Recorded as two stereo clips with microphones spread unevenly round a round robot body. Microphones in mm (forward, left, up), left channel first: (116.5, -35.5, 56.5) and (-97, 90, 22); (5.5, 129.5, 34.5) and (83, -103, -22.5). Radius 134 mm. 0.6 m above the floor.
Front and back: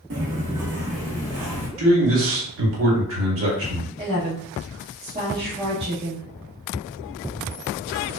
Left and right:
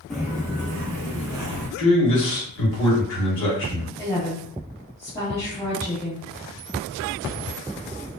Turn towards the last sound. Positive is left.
turn(degrees=-165)